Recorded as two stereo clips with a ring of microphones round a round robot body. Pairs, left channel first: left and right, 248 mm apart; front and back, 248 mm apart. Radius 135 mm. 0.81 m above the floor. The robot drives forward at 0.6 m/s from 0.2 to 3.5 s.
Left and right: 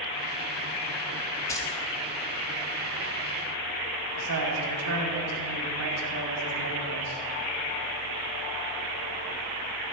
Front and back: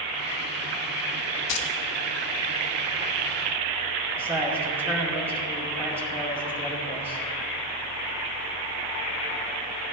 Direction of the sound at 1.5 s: 10° left.